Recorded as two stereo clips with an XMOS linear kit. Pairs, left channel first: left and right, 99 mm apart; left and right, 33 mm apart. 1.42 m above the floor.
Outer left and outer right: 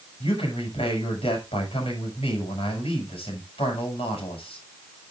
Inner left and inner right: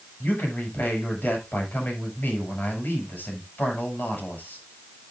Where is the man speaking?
70° left (ahead or behind), 7.5 m.